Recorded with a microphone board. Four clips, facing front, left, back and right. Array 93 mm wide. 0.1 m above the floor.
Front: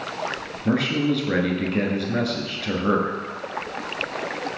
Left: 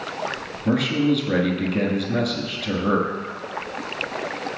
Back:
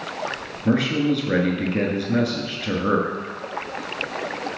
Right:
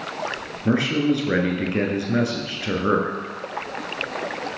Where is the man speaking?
95° right, 1.1 m.